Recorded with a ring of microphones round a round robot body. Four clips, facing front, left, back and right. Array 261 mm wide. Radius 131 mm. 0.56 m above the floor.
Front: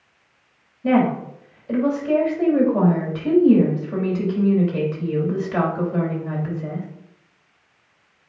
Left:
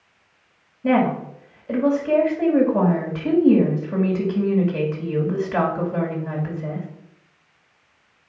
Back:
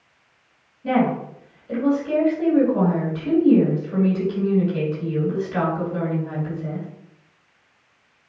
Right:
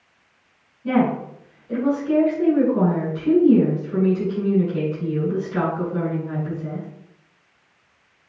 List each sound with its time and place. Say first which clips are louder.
0.8 s a woman speaking: left 1 dB, front 2 dB; 55° left, 3 m